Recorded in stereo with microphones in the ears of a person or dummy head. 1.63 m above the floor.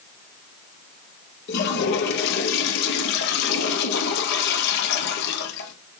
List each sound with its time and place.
1.5 s a toilet flushing: 65° left (ahead or behind), 1.2 m